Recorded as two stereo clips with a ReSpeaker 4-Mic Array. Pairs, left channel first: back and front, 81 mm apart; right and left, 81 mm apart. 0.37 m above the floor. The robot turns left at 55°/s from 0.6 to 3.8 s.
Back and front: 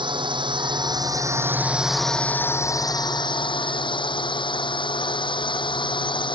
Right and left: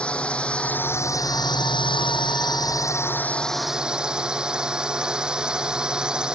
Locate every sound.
0.0 s a drone: 15° right; by 6.3 s 170° left